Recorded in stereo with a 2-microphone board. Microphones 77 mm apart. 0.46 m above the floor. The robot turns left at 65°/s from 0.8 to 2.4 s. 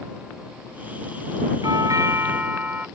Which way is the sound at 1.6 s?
105° right.